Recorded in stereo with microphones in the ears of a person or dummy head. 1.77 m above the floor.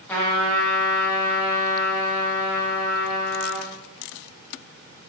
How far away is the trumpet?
About 0.6 m.